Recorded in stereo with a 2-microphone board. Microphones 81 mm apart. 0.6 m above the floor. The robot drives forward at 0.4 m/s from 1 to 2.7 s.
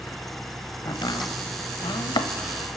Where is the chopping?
60° left (ahead or behind), 1.0 m; by 2.3 s 80° left, 0.9 m.